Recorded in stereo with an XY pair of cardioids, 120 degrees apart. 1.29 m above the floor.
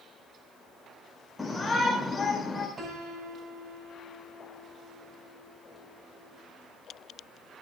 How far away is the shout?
About 5 m.